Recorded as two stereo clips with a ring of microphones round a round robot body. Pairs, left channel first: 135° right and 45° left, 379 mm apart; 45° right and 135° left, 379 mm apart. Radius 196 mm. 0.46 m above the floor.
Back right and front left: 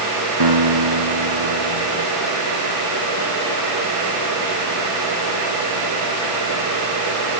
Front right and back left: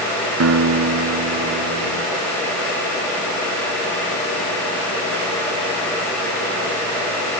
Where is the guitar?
80° left.